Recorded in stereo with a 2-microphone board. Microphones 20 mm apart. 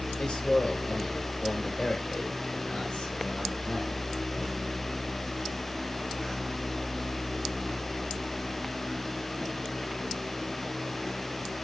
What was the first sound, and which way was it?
A man speaking, 60° left (ahead or behind).